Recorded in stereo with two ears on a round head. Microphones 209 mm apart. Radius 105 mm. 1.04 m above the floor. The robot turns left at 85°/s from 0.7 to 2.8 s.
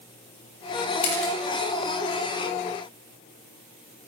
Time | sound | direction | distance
1.0 | a camera shutter | 75° left (ahead or behind) | 4 m